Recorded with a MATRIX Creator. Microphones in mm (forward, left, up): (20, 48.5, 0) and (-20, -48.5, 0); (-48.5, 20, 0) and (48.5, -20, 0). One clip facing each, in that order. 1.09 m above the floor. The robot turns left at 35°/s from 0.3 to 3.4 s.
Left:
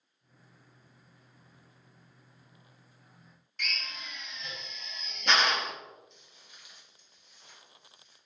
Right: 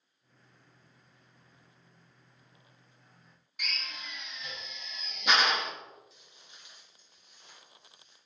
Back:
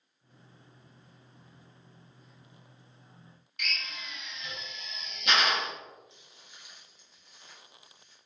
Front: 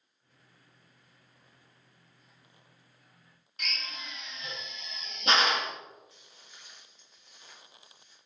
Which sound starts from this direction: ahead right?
A drill, at 3.6 s.